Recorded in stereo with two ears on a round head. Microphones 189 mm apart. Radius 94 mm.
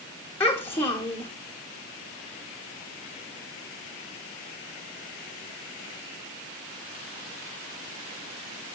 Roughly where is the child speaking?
Centre.